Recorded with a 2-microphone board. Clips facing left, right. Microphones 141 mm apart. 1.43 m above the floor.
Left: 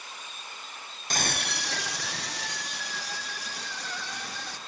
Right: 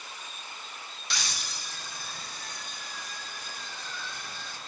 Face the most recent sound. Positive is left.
turn(degrees=75)  # may be behind; listen again after turning